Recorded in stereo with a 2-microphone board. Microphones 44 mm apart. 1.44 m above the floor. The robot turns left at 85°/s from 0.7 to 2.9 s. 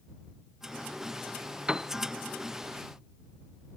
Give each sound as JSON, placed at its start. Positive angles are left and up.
{"t": 1.7, "sound": "a piano", "side_deg": -20}